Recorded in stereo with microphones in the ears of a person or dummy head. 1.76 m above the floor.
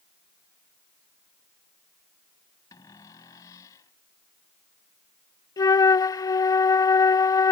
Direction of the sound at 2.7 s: 15° left (ahead or behind).